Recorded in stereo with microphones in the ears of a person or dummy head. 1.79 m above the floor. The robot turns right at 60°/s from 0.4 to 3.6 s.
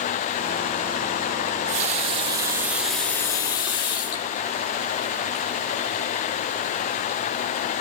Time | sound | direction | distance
1.5 | a running tap | 45° right (ahead or behind) | 1.3 m